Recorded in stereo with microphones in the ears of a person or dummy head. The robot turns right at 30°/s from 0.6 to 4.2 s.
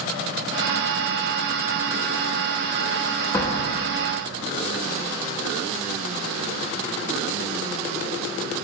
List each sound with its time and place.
3.3 s a door slam: 15° left (ahead or behind), 0.8 m; by 3.6 s 25° left (ahead or behind), 0.8 m